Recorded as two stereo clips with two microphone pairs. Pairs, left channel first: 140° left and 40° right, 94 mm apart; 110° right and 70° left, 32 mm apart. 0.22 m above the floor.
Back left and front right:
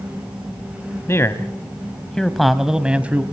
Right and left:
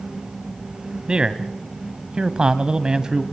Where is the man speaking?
105° left, 1.4 m; by 3.2 s 20° left, 1.4 m.